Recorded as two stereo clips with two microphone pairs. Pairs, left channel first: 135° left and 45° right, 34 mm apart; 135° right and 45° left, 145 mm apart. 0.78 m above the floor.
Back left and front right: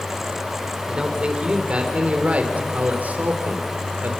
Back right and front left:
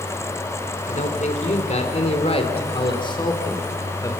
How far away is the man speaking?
About 3.5 m.